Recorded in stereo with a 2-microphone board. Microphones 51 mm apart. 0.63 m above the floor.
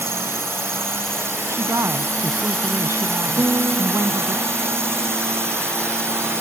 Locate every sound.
0.0 s a drone: 65° right (ahead or behind)
1.5 s a woman speaking: 80° right
3.4 s a guitar: 50° right (ahead or behind)